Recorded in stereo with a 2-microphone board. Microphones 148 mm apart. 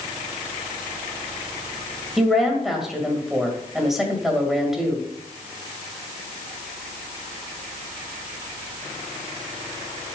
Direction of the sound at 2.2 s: Centre (ahead or behind).